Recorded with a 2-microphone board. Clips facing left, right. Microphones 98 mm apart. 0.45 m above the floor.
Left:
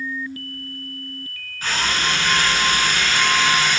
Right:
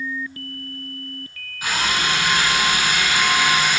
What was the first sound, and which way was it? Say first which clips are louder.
A drill: right 1 dB; 10° right (ahead or behind).